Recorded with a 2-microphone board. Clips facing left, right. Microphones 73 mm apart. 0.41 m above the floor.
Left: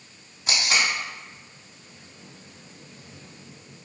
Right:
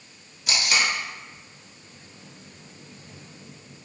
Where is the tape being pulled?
30° left (ahead or behind), 1.1 m.